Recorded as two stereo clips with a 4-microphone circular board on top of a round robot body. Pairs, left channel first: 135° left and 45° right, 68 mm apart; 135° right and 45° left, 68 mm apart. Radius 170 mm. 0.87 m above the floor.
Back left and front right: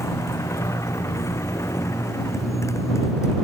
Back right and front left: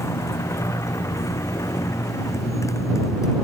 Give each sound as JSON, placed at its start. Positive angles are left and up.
{"t": 0.0, "sound": "a motorcycle", "azimuth_deg": 180}